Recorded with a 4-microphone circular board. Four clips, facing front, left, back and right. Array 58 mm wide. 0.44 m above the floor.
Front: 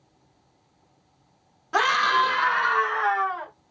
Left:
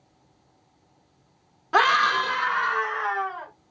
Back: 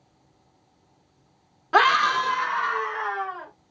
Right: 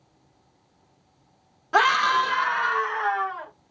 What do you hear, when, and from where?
1.7 s a scream: 170° left, 0.9 m; by 3.5 s straight ahead, 2.5 m